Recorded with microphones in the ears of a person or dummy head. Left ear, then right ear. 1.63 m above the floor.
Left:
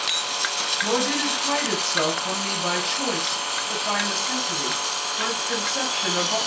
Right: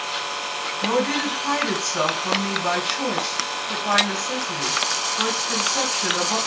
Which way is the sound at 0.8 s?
5° left (ahead or behind).